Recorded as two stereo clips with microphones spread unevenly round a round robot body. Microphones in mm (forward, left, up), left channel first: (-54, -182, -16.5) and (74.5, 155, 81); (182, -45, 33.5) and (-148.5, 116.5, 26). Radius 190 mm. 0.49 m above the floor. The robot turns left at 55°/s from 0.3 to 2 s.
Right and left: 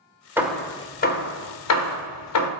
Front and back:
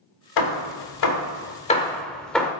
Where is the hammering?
25° right, 1.3 m; by 2.5 s 115° right, 1.3 m.